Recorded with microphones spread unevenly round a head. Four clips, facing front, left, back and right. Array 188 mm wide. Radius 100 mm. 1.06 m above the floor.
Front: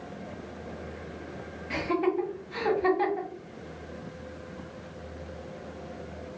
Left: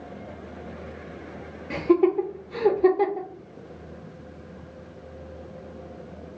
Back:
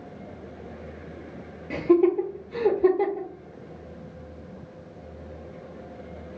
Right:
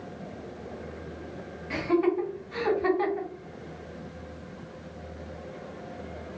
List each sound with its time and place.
1.7 s laughter: 140° left, 0.6 m